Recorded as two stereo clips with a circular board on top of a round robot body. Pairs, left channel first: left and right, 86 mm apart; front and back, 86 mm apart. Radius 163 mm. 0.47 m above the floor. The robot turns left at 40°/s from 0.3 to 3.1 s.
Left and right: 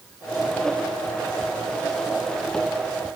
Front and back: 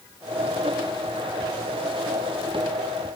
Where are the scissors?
I don't hear scissors.